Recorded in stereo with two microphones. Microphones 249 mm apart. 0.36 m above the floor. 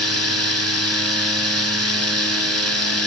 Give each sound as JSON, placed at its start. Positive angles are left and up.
{"t": 0.0, "sound": "running water", "side_deg": -70, "distance_m": 1.0}